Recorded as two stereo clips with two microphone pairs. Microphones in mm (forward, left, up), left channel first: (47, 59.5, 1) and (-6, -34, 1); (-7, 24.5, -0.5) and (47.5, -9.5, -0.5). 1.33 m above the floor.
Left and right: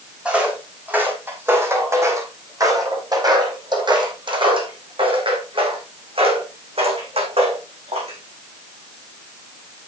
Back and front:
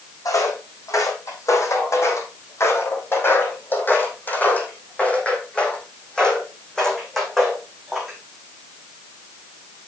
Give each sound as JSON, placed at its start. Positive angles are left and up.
{"t": 0.2, "sound": "footsteps", "azimuth_deg": 160, "distance_m": 4.0}